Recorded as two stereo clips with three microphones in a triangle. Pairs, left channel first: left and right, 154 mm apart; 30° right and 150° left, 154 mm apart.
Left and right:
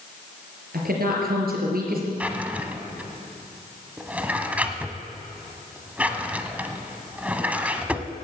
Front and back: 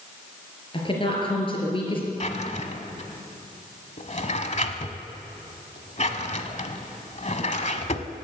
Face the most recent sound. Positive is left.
turn(degrees=-10)